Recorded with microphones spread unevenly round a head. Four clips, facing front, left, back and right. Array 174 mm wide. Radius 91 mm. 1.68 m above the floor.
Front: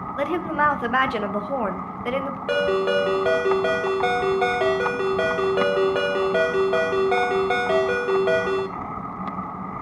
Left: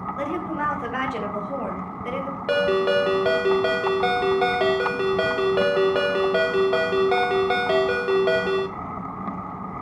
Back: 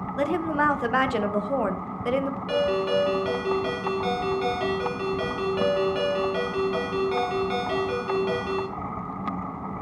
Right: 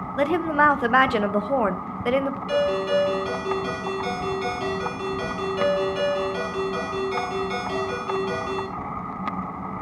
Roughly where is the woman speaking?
Right.